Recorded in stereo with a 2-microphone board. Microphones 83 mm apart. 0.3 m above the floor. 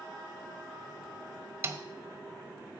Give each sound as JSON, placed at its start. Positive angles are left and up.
{"t": 1.6, "sound": "a snare drum", "side_deg": -30, "distance_m": 1.0}